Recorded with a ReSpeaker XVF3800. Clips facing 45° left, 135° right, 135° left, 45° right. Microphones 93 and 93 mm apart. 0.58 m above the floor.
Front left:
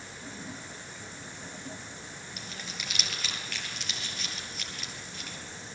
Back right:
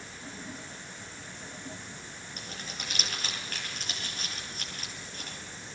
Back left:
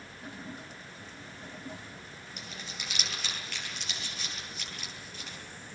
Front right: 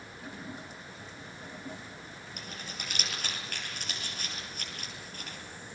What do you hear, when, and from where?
2.4 s crumpling: 85° right, 10 m